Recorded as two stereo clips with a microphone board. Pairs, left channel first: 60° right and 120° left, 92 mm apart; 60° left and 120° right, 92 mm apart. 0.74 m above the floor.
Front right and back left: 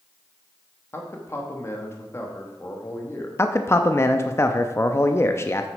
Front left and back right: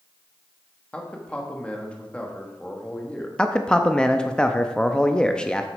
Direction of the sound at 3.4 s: 15° right.